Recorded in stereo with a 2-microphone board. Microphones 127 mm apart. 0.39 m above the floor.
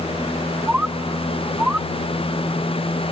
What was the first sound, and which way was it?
A bird, 10° right (ahead or behind).